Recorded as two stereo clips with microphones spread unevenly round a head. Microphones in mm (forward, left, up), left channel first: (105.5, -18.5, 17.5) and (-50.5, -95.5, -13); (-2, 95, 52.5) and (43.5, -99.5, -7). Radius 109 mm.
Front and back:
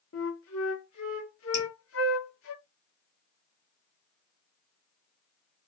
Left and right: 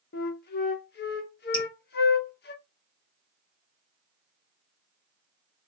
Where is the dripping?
45° left, 1.5 m.